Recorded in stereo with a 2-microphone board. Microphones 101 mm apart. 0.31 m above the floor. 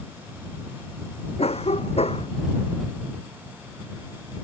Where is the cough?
75° left (ahead or behind).